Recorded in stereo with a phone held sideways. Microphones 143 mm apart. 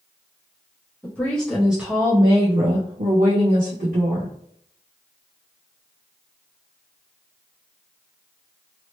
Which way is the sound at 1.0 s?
15° left (ahead or behind).